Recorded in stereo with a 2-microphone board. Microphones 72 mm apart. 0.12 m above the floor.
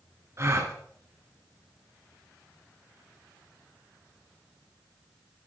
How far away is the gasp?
About 1.7 m.